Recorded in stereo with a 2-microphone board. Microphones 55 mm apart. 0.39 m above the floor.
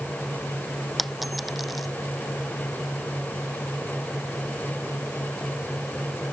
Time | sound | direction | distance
1.0 | a dropped coin | centre (ahead or behind) | ?